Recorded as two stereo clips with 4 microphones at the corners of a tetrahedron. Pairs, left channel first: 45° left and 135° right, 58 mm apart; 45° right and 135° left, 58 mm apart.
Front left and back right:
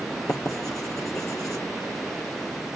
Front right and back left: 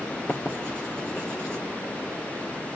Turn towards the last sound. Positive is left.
turn(degrees=25)